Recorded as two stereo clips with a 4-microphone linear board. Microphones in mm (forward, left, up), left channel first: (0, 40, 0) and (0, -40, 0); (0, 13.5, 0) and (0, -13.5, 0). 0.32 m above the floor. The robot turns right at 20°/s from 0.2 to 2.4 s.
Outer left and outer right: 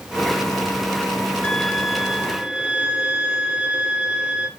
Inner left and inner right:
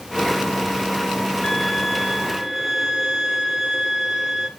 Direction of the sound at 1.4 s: 5° left (ahead or behind).